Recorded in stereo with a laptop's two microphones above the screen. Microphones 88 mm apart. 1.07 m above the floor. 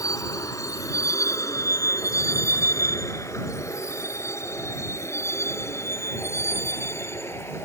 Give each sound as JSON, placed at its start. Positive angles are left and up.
{"t": 0.0, "sound": "a vehicle", "side_deg": 40}